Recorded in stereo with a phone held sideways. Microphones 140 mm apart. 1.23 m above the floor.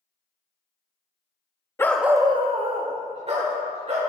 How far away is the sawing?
I don't hear sawing.